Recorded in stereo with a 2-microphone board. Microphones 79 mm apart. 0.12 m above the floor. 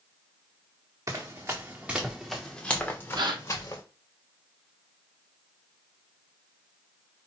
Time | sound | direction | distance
1.1 | running footsteps | 40° right (ahead or behind) | 0.9 m
3.1 | a gasp | 70° right (ahead or behind) | 0.7 m